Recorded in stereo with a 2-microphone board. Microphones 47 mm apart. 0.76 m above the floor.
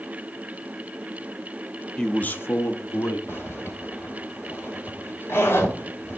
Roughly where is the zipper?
Left.